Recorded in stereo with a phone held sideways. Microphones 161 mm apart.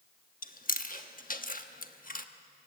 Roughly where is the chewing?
Left.